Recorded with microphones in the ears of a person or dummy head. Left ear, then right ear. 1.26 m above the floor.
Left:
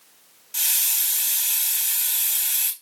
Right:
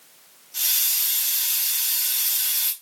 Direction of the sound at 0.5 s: 35° left (ahead or behind).